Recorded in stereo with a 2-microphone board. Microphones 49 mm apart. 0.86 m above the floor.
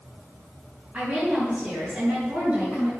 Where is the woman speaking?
25° right (ahead or behind), 7.5 m; by 2.9 s 30° right (ahead or behind), 7.5 m.